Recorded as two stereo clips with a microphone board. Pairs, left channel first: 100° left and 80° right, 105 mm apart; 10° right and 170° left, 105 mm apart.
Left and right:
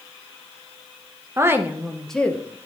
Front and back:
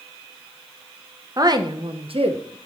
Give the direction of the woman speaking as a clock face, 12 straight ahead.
5 o'clock.